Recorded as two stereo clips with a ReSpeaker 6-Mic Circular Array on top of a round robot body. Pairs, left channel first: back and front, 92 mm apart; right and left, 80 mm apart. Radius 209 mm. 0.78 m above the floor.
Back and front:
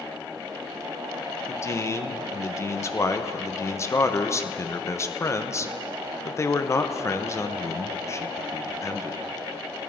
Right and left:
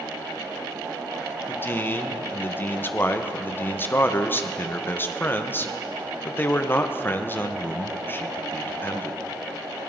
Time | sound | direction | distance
1.5 | a man speaking | 140° right | 1.3 m